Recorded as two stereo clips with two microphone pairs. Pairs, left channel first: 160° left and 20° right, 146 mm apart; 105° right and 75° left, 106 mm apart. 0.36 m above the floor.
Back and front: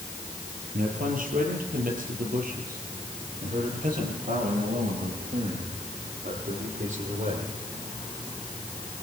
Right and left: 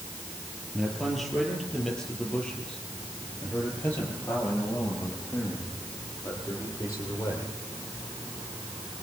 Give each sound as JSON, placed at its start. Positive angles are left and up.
{"t": 0.7, "sound": "a man speaking", "azimuth_deg": -10, "distance_m": 8.0}